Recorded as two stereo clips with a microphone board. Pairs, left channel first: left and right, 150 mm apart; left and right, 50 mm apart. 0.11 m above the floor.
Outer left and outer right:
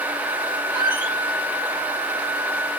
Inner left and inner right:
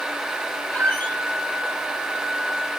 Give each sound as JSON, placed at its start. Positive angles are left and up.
{"t": 0.7, "sound": "a squeak", "side_deg": 30, "distance_m": 0.7}